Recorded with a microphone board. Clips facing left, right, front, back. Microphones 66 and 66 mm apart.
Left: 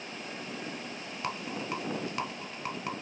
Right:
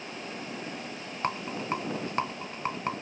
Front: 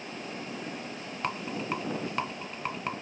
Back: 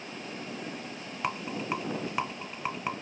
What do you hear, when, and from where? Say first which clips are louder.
1.2 s a rattle: right 4 dB, even; 100° right, 0.9 m